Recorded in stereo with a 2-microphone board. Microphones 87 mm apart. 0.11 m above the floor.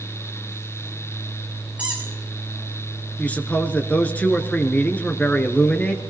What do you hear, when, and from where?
1.8 s a squeak: 15° right (ahead or behind), 5 m
3.2 s a man speaking: 15° left (ahead or behind), 1.2 m